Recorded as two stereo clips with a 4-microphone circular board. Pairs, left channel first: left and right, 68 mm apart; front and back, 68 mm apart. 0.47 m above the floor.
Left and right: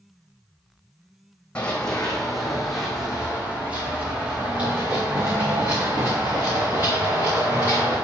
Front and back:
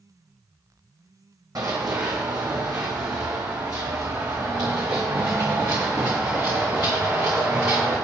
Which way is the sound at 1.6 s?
160° left.